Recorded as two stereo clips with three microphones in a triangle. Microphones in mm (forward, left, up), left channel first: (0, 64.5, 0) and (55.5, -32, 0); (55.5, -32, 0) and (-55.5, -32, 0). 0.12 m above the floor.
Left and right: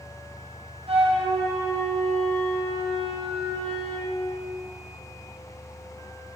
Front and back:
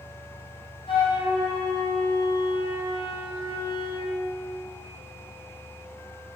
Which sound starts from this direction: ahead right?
A flute, at 0.9 s.